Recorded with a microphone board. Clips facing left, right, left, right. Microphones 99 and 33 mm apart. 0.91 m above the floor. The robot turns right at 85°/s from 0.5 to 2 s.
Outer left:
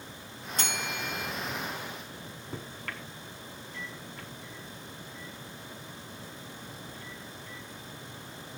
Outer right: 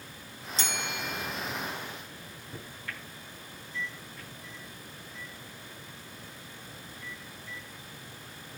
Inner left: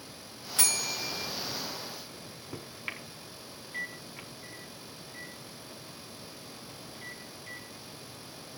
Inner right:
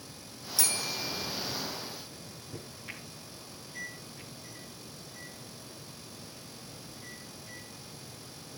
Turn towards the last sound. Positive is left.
turn(degrees=60)  # may be behind; listen again after turning